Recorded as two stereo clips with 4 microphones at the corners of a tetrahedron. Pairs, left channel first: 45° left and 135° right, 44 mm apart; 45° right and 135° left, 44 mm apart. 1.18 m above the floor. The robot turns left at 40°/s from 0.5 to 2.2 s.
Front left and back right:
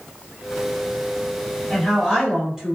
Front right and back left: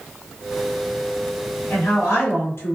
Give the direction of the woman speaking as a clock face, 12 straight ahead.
1 o'clock.